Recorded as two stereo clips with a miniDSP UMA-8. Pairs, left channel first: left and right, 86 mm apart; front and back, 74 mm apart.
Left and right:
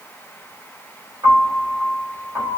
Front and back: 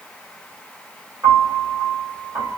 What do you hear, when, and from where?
1.2 s a piano: 130° right, 1.9 m